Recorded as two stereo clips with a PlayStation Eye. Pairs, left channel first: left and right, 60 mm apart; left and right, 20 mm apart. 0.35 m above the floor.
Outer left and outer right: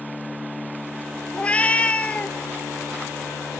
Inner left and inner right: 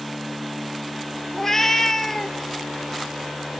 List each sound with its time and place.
1.3 s a cat meowing: 20° left (ahead or behind), 1.2 m